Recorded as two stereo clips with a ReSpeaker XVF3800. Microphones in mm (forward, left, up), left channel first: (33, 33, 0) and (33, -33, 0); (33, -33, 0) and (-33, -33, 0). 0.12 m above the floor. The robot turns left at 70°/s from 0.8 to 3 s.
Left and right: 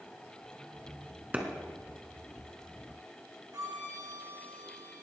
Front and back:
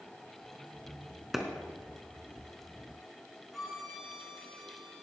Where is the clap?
105° right, 1.4 m; by 1.4 s 110° right, 1.4 m.